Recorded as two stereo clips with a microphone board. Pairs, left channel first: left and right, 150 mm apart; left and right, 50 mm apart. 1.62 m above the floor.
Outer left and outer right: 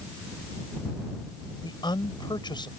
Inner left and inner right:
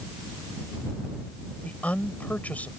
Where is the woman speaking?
30° left (ahead or behind).